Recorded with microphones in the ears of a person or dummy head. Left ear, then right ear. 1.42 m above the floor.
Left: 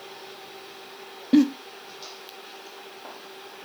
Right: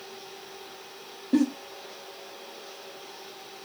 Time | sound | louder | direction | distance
1.3 | a giggle | left 5 dB | 30° left (ahead or behind) | 0.7 m